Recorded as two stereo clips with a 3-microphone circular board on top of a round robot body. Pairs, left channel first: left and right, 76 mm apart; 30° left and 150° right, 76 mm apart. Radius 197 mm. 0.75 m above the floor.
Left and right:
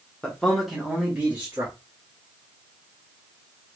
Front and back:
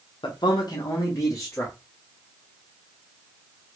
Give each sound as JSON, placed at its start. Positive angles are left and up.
{"t": 0.2, "sound": "a man speaking", "azimuth_deg": 15, "distance_m": 1.0}